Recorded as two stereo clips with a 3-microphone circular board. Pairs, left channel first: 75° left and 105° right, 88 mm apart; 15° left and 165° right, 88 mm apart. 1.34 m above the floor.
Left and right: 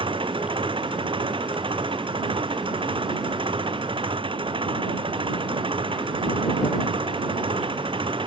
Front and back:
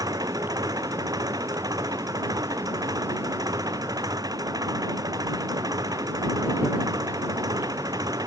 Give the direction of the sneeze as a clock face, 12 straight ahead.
I don't hear a sneeze.